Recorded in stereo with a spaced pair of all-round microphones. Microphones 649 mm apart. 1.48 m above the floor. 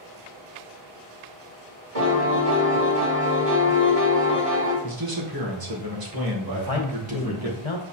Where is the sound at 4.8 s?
35° right (ahead or behind), 1.1 m.